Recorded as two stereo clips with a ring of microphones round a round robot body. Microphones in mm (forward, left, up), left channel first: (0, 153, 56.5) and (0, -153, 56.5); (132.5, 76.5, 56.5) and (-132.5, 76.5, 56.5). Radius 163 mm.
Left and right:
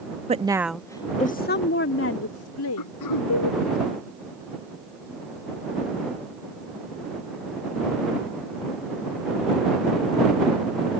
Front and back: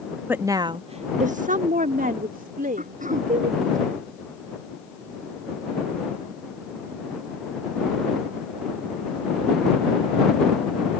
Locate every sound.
0.3 s a woman speaking: 110° right; by 3.8 s 120° left
2.8 s throat clearing: 120° left